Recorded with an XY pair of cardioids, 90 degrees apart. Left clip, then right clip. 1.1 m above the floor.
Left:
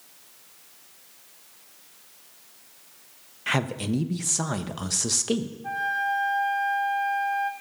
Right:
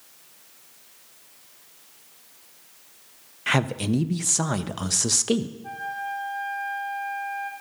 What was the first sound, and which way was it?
A man speaking, 20° right.